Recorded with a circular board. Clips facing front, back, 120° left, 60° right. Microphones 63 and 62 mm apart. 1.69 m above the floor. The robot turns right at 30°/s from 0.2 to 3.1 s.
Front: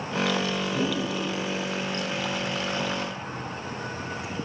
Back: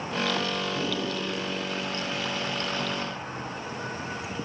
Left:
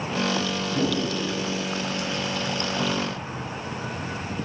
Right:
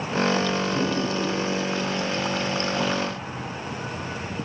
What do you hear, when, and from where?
0.7 s a whoosh: 10° left, 8.5 m; by 1.0 s 25° left, 8.5 m